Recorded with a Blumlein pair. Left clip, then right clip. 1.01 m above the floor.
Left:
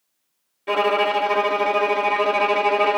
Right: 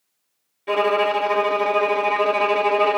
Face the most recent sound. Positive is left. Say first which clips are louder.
# even
turn(degrees=5)